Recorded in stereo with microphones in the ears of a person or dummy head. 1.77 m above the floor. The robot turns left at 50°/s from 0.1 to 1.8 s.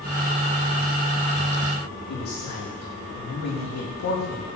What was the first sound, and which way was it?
A man speaking, 45° left (ahead or behind).